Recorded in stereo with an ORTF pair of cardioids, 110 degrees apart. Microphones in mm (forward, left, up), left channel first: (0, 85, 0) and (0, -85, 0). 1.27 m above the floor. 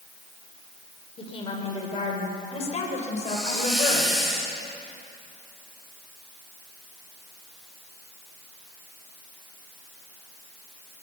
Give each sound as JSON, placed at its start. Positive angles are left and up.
{"t": 1.2, "sound": "a woman speaking", "azimuth_deg": 35, "distance_m": 5.0}
{"t": 3.2, "sound": "a hiss", "azimuth_deg": 0, "distance_m": 6.5}